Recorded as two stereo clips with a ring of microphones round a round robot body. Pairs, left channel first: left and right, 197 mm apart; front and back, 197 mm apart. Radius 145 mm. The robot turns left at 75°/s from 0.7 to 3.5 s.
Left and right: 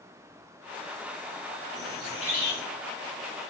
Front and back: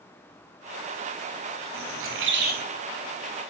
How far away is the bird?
About 1.1 m.